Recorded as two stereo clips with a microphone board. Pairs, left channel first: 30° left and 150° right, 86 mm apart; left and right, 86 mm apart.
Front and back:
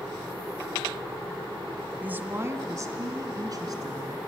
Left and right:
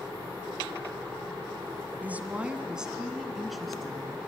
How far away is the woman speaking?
About 1.1 m.